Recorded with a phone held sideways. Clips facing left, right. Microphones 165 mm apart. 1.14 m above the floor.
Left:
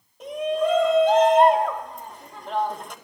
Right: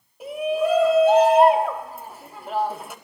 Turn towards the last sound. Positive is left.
turn(degrees=-5)  # may be behind; listen again after turning